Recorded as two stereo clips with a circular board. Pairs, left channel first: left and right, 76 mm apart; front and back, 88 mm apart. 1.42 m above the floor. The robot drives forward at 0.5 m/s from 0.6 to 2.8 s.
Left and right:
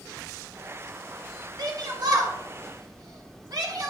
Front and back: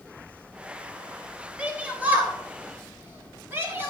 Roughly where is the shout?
Right.